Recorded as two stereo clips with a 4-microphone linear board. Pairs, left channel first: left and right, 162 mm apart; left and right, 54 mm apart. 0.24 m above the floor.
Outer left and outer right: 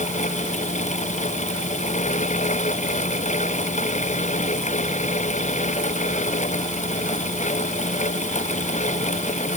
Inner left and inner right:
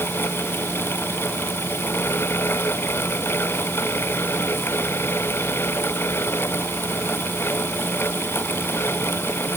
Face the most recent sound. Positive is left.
No sound to turn to.